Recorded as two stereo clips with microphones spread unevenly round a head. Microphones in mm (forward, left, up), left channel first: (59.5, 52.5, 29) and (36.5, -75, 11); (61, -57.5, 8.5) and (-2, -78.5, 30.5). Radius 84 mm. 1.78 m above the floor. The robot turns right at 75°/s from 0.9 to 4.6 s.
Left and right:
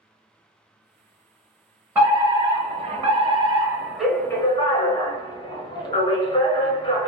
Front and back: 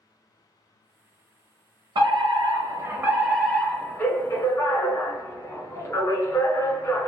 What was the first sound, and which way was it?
A fire alarm, 175° right.